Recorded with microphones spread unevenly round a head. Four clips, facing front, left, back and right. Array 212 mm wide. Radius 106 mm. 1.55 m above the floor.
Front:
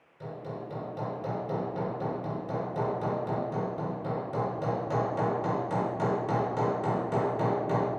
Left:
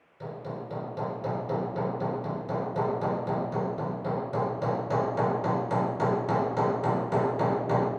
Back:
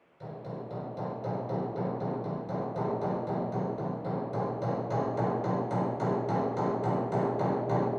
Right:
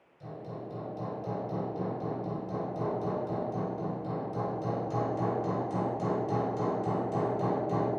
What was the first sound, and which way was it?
Hammering, 55° left.